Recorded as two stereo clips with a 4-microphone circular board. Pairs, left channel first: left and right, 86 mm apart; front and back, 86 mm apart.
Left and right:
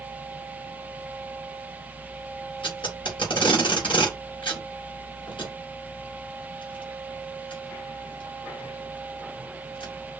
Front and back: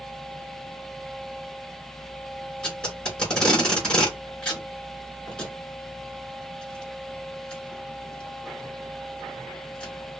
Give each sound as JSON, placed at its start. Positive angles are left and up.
{"t": 2.6, "sound": "tape being pulled", "azimuth_deg": 75, "distance_m": 3.5}